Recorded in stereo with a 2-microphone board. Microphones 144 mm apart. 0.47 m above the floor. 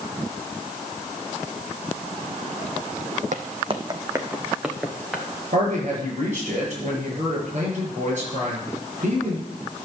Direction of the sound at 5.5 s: 55° right (ahead or behind).